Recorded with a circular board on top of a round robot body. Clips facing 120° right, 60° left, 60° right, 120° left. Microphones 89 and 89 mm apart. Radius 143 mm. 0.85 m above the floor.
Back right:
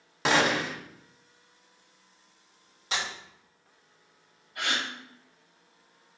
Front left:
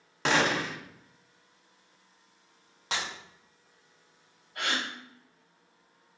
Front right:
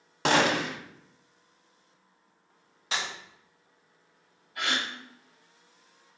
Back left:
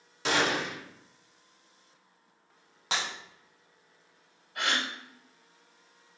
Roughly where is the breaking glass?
Left.